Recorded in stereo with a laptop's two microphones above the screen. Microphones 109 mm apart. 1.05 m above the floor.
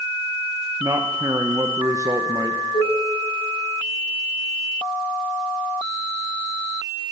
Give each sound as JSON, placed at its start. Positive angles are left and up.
{"t": 0.8, "sound": "a man speaking", "side_deg": -30, "distance_m": 0.8}
{"t": 2.7, "sound": "dishes clattering", "side_deg": 85, "distance_m": 3.5}